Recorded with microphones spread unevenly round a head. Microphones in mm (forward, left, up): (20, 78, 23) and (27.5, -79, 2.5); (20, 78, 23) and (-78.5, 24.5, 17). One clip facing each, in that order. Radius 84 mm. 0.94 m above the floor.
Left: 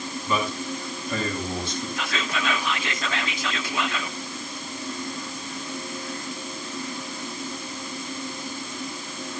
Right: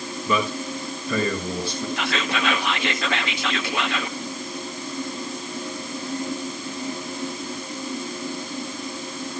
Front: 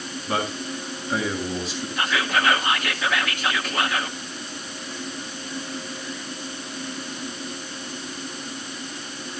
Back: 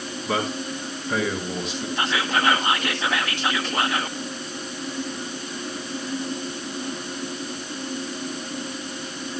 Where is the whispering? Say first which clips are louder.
Right 5 dB, even; 85° right, 1.6 m.